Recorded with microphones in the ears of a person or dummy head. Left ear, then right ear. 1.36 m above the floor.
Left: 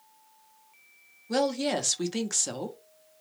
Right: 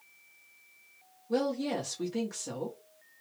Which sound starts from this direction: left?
A woman speaking, at 1.3 s.